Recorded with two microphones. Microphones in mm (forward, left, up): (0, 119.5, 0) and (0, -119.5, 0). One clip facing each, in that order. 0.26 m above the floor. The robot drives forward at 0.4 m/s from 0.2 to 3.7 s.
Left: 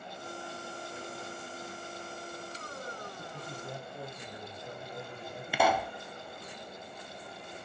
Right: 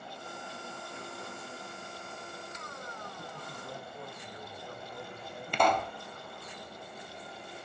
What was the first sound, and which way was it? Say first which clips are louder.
A man speaking: left 2 dB; 25° left (ahead or behind).